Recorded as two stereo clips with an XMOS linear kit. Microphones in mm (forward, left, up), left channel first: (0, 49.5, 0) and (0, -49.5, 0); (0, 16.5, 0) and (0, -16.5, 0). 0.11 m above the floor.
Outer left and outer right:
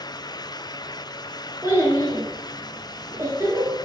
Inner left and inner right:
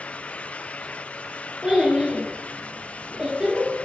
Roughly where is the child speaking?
Right.